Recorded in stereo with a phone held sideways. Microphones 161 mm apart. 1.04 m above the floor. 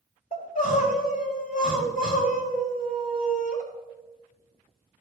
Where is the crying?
65° left (ahead or behind), 4 m.